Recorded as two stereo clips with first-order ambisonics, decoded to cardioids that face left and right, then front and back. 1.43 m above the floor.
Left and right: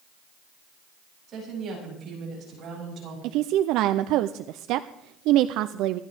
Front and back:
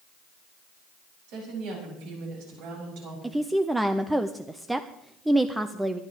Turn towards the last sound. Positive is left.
turn(degrees=-95)